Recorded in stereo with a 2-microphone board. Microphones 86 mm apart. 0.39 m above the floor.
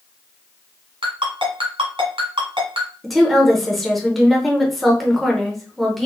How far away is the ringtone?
About 1.4 m.